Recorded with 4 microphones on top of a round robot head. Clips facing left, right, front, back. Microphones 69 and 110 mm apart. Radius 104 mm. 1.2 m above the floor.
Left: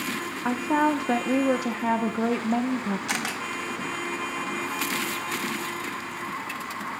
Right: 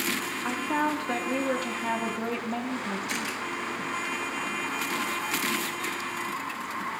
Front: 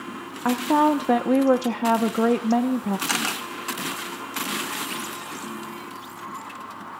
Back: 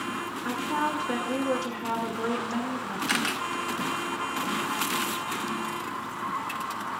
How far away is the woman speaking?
About 1.0 m.